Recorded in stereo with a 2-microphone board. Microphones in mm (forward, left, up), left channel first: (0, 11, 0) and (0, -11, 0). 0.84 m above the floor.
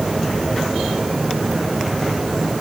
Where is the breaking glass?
No breaking glass in this recording.